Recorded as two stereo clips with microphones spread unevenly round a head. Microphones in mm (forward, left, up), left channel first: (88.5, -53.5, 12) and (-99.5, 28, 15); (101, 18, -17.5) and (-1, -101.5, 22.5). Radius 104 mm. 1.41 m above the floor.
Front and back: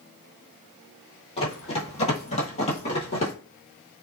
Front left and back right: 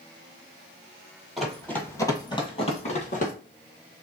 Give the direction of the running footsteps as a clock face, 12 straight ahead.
2 o'clock.